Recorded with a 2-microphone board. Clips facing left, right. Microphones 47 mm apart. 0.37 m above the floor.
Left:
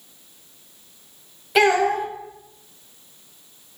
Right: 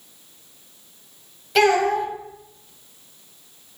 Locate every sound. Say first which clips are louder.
1.6 s a child speaking: even; 10° left (ahead or behind), 1.0 m